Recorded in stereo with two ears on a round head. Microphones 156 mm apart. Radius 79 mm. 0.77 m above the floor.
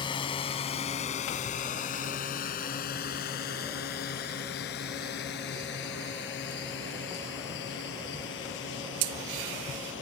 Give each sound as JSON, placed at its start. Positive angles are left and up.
{"t": 0.0, "sound": "a drone", "side_deg": 30}